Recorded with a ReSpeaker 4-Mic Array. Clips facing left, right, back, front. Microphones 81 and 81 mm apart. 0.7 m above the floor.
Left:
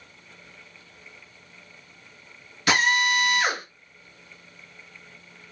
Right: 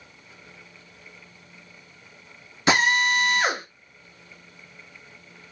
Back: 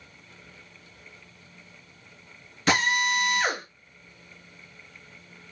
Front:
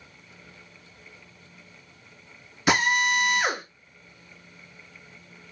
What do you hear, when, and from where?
2.7 s a drill: 65° right, 0.9 m